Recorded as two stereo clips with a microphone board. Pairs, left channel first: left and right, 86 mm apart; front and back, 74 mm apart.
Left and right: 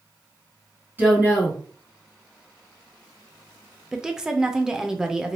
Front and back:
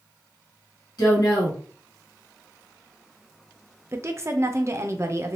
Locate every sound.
1.0 s a woman speaking: 25° right, 1.8 m
3.9 s a woman speaking: 170° right, 0.6 m